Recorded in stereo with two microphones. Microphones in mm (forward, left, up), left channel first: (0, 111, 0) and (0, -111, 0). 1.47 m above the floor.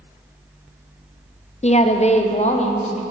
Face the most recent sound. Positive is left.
turn(degrees=30)  # may be behind; listen again after turning